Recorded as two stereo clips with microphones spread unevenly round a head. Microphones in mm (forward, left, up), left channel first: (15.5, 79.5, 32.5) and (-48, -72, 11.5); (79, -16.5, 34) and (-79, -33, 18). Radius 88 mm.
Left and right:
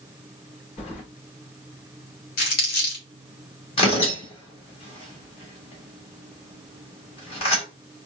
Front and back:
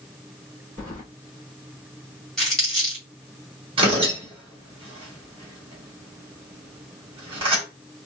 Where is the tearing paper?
125° left, 1.5 m.